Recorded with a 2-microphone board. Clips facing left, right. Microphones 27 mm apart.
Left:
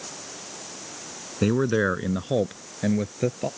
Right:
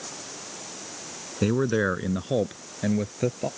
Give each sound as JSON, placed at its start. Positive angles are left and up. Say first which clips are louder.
{"t": 1.4, "sound": "a man speaking", "louder": "left 1 dB", "side_deg": 5}